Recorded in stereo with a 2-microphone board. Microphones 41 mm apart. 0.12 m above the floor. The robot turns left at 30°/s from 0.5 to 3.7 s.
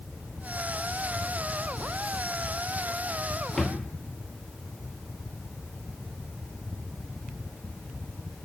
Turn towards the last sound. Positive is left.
turn(degrees=10)  # may be behind; listen again after turning